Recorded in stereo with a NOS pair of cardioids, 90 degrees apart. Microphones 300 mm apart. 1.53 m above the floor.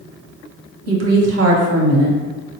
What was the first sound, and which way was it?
A woman speaking, 55° right.